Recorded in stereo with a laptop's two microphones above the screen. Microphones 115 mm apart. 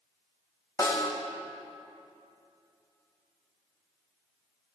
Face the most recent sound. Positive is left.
turn(degrees=35)  # may be behind; listen again after turning